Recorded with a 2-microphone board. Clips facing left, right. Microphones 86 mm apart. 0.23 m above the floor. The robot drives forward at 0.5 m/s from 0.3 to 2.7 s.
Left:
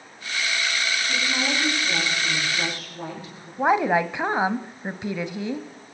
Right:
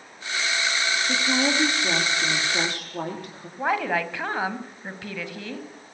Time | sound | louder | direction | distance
1.1 | a woman speaking | right 4 dB | 50° right (ahead or behind) | 9 m
3.6 | a woman speaking | left 5 dB | 20° left (ahead or behind) | 1.3 m